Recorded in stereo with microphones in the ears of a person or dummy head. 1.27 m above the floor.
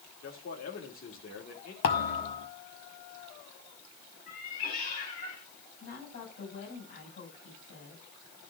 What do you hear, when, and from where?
0.2 s a man speaking: 55° left (ahead or behind), 2.5 m
1.8 s a thud: 40° left (ahead or behind), 0.9 m
4.3 s a cat meowing: 60° left (ahead or behind), 3.5 m
5.8 s a woman speaking: 65° left (ahead or behind), 6 m